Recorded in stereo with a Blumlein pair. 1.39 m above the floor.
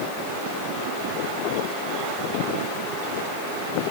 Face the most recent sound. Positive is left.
No sound to turn to.